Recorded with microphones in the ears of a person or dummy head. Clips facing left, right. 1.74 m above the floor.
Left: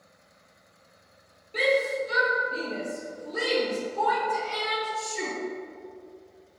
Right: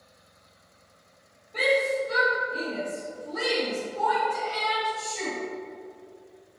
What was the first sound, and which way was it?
A shout, 40° left (ahead or behind).